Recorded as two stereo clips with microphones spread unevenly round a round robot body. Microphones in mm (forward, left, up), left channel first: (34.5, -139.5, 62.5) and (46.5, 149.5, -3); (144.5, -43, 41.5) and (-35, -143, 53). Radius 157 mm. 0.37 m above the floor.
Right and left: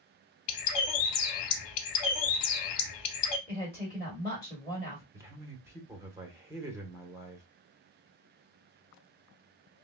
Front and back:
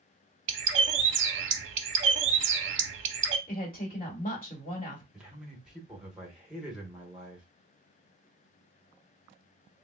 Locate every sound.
0.5 s a bird: 120° right, 0.6 m
3.5 s a woman speaking: 15° right, 1.5 m
5.1 s a man speaking: 120° left, 1.0 m